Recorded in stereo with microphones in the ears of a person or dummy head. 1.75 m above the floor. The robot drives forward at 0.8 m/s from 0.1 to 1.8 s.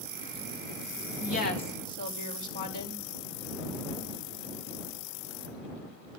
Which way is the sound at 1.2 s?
55° left (ahead or behind).